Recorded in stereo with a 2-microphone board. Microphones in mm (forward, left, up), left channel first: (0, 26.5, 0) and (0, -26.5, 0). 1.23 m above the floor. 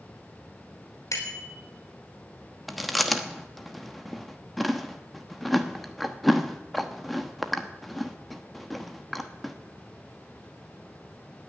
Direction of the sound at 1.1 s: 70° left (ahead or behind).